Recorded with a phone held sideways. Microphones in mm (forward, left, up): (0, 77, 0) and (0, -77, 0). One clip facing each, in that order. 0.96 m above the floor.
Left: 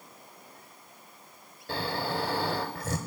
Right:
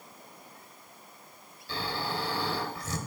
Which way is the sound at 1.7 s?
50° left (ahead or behind).